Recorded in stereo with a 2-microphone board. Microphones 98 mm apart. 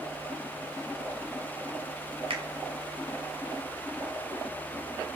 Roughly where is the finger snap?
Right.